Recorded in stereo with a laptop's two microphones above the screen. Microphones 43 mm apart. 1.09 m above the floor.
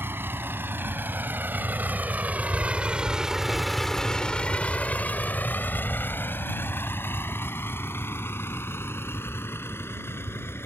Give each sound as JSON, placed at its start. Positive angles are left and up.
{"t": 0.0, "sound": "a vehicle", "side_deg": -65}